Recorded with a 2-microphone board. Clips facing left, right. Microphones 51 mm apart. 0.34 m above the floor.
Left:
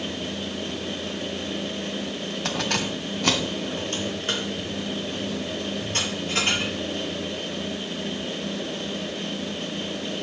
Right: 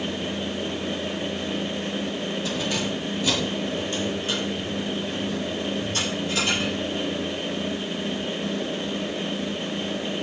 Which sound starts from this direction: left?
Keys jangling, at 2.5 s.